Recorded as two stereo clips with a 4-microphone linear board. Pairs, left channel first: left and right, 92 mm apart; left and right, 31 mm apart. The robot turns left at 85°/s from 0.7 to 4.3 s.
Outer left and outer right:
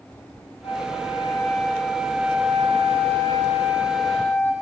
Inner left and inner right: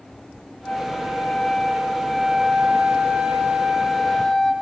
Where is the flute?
105° left, 8 m; by 4.5 s 160° left, 8 m.